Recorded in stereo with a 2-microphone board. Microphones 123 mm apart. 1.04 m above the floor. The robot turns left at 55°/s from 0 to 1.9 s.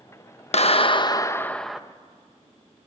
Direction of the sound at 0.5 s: 65° left.